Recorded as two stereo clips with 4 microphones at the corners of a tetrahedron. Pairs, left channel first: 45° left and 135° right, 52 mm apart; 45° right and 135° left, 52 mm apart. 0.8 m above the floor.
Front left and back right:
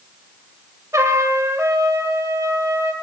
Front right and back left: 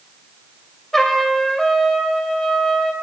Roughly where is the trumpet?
Behind right.